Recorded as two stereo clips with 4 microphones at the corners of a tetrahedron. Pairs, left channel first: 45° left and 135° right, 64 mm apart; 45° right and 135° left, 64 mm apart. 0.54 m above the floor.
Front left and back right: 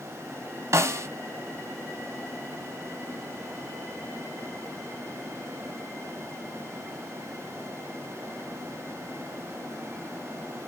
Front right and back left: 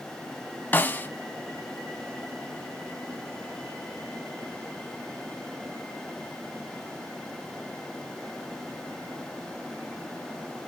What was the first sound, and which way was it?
A snare drum, 105° right.